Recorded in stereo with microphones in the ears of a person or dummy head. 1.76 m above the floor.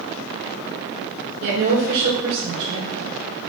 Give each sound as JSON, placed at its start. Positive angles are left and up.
{"t": 1.4, "sound": "a woman speaking", "side_deg": -70, "distance_m": 2.5}